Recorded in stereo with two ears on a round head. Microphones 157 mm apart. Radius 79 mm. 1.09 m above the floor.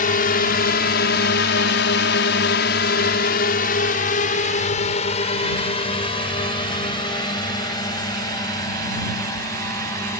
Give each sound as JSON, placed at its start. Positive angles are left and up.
{"t": 0.0, "sound": "a drone", "side_deg": 50}